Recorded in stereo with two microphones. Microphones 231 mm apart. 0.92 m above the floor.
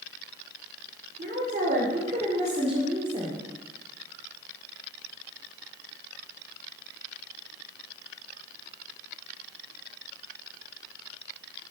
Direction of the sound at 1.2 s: 40° right (ahead or behind).